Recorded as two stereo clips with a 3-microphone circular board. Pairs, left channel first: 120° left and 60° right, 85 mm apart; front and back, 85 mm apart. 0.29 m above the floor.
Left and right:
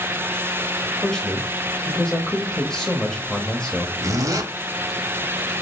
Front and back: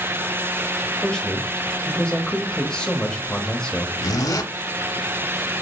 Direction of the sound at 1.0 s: 55° left.